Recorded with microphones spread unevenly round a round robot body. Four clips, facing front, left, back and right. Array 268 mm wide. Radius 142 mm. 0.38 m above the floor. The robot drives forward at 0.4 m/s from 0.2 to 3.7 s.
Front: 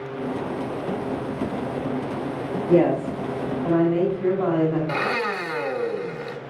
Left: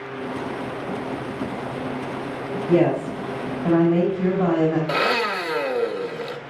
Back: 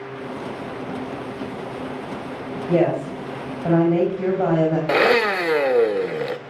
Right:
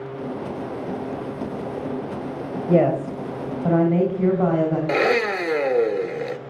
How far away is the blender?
About 0.5 m.